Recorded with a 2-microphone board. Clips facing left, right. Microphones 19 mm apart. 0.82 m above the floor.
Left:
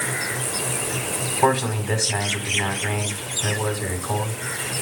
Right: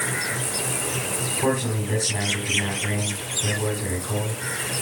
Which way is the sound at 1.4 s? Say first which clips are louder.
Left 5 dB; 85° left.